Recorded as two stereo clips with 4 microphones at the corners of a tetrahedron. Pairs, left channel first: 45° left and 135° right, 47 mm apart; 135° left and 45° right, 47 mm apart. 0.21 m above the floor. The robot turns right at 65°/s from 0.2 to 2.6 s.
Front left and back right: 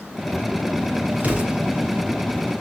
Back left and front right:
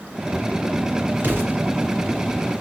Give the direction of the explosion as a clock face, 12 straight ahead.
3 o'clock.